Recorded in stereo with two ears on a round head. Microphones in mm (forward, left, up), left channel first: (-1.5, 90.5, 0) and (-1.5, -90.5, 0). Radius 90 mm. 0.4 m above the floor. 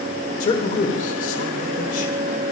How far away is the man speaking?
About 1.4 m.